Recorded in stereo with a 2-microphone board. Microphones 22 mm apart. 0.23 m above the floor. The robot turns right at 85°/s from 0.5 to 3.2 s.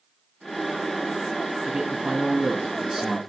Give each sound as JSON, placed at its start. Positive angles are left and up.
{"t": 1.6, "sound": "a man speaking", "azimuth_deg": -105, "distance_m": 1.6}